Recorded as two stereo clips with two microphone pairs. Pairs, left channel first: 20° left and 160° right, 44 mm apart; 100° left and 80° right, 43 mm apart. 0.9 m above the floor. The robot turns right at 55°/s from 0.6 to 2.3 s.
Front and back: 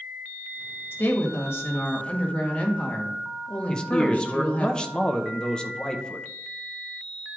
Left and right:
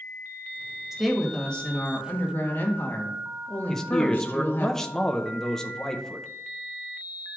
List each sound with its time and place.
0.9 s a woman speaking: 5° right, 1.4 m; by 4.7 s 70° left, 1.4 m
3.7 s a man speaking: 30° left, 0.6 m